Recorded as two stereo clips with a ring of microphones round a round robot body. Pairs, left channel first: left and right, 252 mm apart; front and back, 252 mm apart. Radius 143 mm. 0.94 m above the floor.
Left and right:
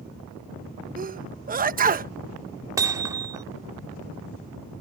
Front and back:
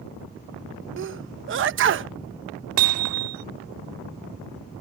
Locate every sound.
1.0 s a sneeze: 145° right
2.8 s hammering: 165° right